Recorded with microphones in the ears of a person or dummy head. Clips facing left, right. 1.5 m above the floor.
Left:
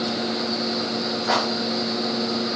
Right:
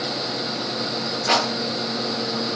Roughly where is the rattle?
Right.